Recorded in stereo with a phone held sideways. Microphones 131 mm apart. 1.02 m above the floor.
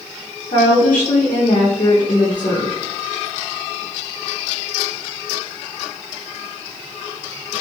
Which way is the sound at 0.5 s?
65° left (ahead or behind).